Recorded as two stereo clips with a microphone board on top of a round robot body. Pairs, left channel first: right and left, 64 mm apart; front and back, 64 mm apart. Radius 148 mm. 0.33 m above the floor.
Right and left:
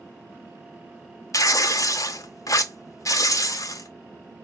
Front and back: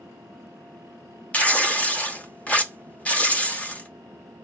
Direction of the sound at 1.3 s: 65° right.